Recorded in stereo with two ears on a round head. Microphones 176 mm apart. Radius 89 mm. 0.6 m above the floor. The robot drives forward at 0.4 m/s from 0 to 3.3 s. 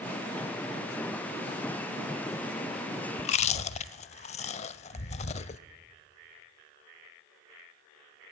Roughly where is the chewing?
Left.